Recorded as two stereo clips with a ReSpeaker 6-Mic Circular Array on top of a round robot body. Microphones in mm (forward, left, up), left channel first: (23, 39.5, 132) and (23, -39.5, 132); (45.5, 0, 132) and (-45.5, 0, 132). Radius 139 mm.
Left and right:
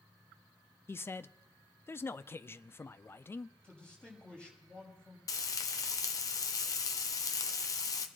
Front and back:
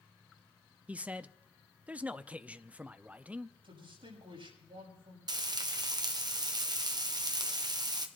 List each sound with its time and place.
0.9 s a man speaking: 120° left, 0.7 m
3.6 s a man speaking: 170° left, 5.5 m
5.3 s frying: 135° left, 1.0 m